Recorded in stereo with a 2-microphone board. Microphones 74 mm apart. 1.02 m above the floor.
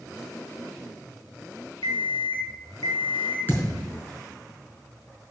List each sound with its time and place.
1.8 s an alarm clock: 75° left (ahead or behind), 2.5 m
3.5 s a thud: 30° left (ahead or behind), 4.5 m